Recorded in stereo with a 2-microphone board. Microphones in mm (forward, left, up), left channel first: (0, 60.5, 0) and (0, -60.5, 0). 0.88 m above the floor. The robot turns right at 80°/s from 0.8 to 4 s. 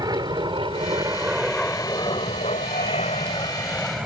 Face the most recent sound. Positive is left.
turn(degrees=-5)  # may be behind; listen again after turning